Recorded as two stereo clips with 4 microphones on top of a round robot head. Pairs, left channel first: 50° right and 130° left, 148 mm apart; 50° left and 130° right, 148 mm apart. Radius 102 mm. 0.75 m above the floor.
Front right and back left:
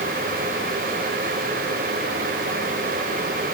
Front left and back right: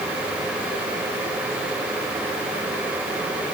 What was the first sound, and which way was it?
Only background noise.